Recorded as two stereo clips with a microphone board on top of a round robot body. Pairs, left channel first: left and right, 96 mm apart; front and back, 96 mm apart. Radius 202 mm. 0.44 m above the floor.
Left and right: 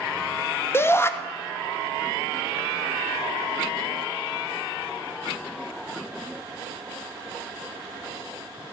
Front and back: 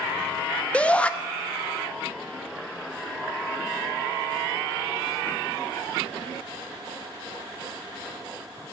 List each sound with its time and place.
0.7 s a shout: 65° left, 0.7 m